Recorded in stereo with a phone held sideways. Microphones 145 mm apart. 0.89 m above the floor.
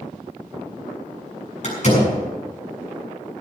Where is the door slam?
55° left (ahead or behind), 7 m.